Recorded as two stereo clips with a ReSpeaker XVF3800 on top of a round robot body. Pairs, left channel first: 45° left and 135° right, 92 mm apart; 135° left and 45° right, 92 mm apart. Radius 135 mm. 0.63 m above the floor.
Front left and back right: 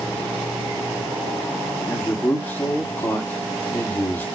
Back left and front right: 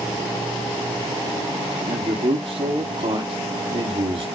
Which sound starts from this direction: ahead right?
A man speaking, at 1.9 s.